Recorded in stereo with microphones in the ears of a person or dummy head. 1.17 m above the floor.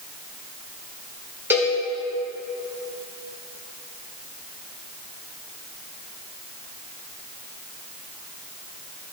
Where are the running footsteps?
No running footsteps in this recording.